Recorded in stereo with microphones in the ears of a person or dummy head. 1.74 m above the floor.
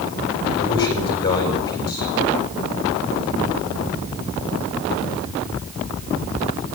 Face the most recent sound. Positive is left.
turn(degrees=25)  # may be behind; listen again after turning